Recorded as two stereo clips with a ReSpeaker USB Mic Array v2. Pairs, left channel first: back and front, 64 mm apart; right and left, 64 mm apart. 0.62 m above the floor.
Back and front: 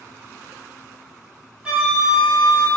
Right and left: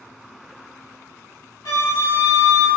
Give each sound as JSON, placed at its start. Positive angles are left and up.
{"t": 1.6, "sound": "a flute", "azimuth_deg": -70, "distance_m": 0.8}